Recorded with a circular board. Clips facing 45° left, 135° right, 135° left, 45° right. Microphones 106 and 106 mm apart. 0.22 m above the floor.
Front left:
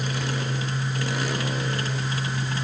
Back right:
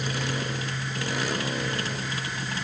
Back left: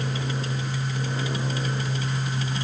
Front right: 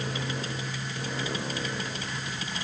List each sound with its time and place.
Only background noise.